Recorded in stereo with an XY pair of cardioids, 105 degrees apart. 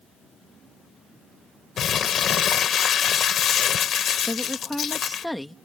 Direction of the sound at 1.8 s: 60° left.